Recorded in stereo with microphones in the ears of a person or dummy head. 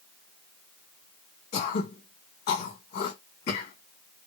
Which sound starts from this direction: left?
Throat clearing, at 1.5 s.